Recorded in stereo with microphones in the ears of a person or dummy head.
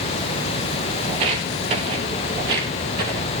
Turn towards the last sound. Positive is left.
turn(degrees=-20)  # may be behind; listen again after turning